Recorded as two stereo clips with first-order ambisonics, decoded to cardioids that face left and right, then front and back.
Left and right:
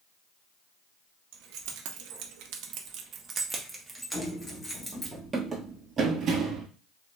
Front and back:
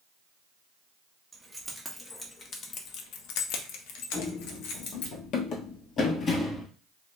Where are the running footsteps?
15° left, 1.5 m; by 6.7 s 70° right, 1.2 m.